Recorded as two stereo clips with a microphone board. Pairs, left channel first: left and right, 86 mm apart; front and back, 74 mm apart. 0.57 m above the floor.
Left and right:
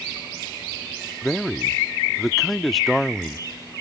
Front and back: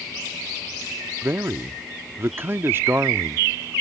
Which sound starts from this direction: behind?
A man speaking, at 1.2 s.